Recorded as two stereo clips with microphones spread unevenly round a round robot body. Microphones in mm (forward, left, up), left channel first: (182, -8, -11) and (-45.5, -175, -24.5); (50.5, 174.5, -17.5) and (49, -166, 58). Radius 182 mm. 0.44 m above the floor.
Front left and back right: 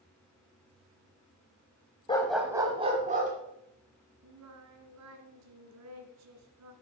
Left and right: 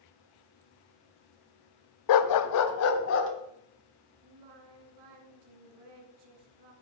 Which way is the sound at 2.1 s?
115° left.